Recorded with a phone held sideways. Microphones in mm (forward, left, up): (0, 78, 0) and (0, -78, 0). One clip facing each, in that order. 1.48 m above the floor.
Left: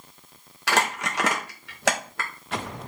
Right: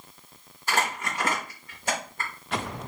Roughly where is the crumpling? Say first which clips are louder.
Left 3 dB; left.